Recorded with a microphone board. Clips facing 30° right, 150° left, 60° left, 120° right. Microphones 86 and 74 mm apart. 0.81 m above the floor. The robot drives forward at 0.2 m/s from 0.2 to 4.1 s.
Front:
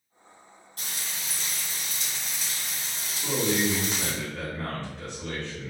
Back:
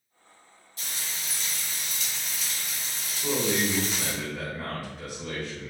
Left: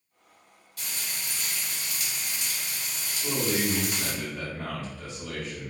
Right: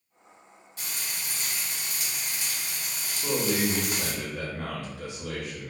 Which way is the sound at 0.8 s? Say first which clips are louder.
Even, even; 60° right.